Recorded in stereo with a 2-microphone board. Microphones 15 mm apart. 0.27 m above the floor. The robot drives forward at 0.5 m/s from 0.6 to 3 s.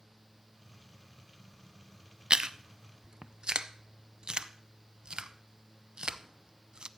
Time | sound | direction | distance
2.3 | chewing | 65° right (ahead or behind) | 0.5 m